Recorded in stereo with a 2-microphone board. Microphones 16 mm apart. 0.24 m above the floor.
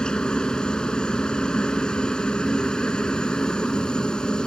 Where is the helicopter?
60° left (ahead or behind).